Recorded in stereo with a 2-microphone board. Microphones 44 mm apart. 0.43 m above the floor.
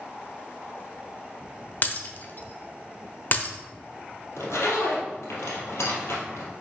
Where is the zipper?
85° left, 2.5 m.